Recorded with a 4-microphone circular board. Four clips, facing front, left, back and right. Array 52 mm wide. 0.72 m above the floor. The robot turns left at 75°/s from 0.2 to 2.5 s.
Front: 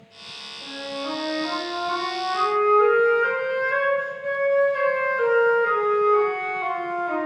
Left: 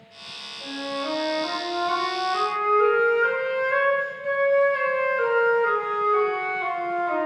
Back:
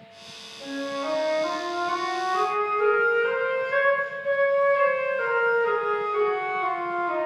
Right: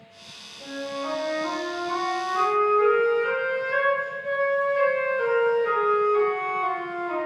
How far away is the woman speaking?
I don't hear a woman speaking.